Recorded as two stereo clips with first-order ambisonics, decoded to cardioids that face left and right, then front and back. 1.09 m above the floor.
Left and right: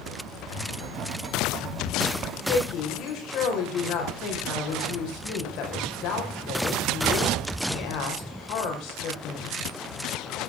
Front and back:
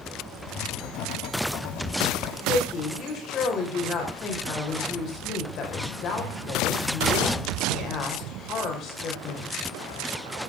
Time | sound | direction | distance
0.5 | writing | 35° right | 1.9 m
2.5 | a woman speaking | 55° left | 5.5 m